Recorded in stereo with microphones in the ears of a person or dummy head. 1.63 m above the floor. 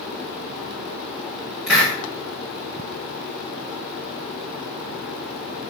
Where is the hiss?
5° right (ahead or behind), 3 m.